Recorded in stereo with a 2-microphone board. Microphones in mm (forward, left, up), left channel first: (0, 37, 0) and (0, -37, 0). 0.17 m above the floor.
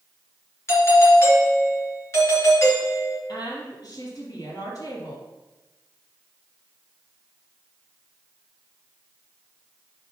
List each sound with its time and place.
0.7 s a doorbell: 35° left (ahead or behind), 3 m
3.3 s a woman speaking: 50° left (ahead or behind), 4 m